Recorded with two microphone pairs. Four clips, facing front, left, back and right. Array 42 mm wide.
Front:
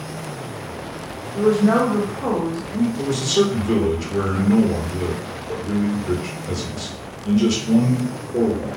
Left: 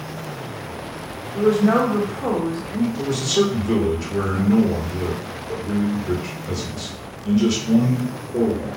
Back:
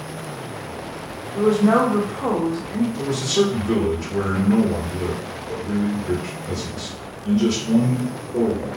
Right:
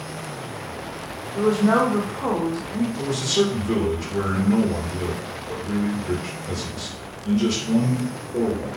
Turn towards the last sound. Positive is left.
turn(degrees=30)